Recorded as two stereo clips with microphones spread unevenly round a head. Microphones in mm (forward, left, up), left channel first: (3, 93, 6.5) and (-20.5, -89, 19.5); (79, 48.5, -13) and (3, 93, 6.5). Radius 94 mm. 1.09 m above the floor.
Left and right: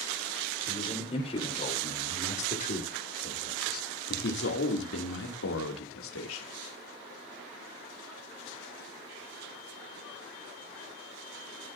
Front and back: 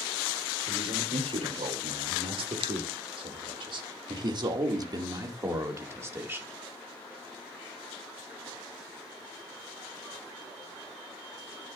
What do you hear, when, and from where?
0.7 s a man speaking: 150° left, 4.5 m; by 6.5 s 80° left, 3 m